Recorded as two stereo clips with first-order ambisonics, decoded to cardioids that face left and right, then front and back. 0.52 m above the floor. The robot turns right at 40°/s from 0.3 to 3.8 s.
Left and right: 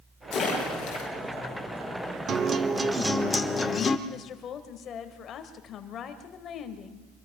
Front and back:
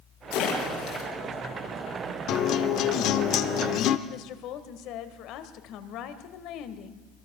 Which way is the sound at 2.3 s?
35° right.